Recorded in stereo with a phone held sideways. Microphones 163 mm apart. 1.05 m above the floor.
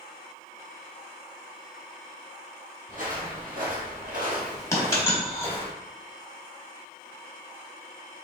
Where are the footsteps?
55° right (ahead or behind), 2.5 m; by 5.7 s 30° right (ahead or behind), 1.7 m.